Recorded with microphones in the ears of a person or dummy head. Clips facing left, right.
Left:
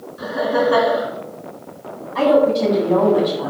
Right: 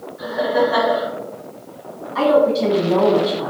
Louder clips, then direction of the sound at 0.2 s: Even; 65° left (ahead or behind).